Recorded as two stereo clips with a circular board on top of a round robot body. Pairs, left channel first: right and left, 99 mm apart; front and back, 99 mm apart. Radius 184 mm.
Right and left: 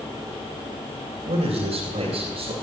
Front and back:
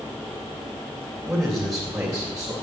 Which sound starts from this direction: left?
A man speaking, at 1.2 s.